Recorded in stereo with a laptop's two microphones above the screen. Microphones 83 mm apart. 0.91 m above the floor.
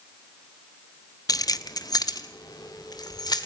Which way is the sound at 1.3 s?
45° left (ahead or behind).